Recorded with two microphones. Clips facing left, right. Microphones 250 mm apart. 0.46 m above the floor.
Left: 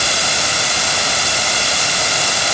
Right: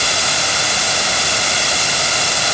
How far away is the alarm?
No alarm in this recording.